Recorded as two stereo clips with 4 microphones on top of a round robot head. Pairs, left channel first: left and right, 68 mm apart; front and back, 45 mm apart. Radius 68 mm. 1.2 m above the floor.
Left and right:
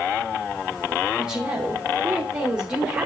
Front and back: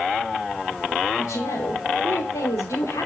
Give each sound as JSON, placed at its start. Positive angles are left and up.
{"t": 1.2, "sound": "a woman speaking", "azimuth_deg": -15, "distance_m": 4.0}